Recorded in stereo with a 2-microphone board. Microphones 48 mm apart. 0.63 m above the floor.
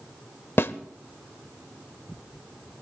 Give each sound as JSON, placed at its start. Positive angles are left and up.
{"t": 0.6, "sound": "a snare drum", "side_deg": 55, "distance_m": 0.5}